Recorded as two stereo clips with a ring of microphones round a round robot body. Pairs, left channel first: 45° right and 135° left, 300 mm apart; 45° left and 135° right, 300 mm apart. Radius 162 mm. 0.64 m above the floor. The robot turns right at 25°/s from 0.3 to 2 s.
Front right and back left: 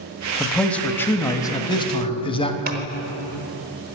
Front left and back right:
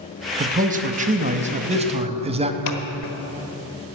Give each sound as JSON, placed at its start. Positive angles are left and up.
{"t": 0.4, "sound": "a man speaking", "azimuth_deg": -135, "distance_m": 1.0}
{"t": 2.7, "sound": "scissors", "azimuth_deg": 70, "distance_m": 1.3}